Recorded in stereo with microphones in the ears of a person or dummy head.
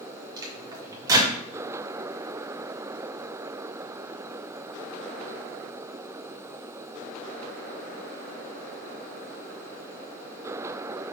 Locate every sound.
0.4 s a microwave: 25° right (ahead or behind), 0.6 m